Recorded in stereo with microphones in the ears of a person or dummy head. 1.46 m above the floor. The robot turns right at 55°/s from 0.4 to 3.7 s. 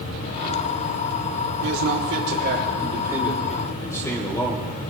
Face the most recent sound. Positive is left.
turn(degrees=10)